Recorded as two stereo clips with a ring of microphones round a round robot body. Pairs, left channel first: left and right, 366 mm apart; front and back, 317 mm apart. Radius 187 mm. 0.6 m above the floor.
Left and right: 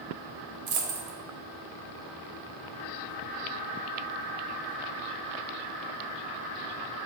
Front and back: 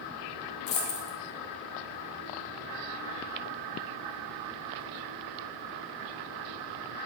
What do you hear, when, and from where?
0.7 s a dropped coin: 25° right, 1.0 m